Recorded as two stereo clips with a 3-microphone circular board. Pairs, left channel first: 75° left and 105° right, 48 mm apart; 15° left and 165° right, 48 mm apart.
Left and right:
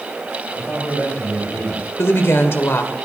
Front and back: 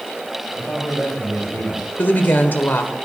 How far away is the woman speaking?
About 1.6 m.